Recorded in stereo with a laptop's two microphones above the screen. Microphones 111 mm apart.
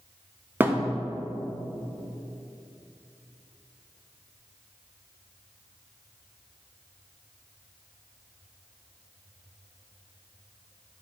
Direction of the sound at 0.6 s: 20° right (ahead or behind).